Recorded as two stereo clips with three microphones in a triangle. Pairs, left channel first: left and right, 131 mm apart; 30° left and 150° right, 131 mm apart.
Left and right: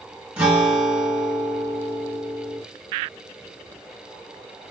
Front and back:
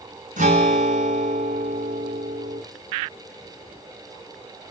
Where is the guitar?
170° right, 2.5 m.